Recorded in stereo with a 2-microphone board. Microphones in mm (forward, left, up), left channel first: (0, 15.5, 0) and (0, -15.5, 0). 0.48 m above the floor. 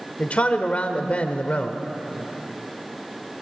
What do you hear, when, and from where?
0.2 s a man speaking: 45° left (ahead or behind), 1.2 m